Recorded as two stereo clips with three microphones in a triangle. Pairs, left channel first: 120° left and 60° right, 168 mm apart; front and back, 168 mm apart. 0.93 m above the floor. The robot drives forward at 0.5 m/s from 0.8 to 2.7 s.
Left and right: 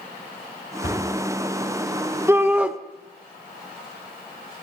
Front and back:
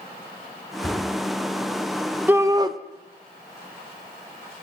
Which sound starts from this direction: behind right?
A shout, at 2.3 s.